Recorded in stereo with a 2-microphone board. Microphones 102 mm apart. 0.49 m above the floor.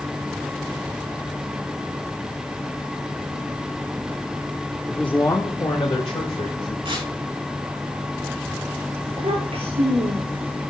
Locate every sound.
4.9 s a man speaking: 5° right (ahead or behind), 0.9 m; by 6.8 s 70° left (ahead or behind), 2.5 m
6.8 s tearing paper: 55° right (ahead or behind), 3.5 m
9.1 s a child speaking: 70° right (ahead or behind), 7 m